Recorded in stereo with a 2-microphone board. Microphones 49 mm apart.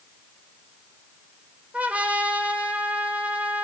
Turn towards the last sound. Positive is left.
turn(degrees=-30)  # may be behind; listen again after turning